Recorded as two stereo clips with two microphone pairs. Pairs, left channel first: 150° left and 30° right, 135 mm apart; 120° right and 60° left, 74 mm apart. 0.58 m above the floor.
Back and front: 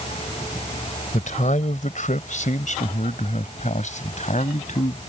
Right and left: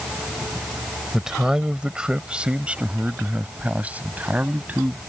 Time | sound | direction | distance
1.1 | a man speaking | 140° left | ?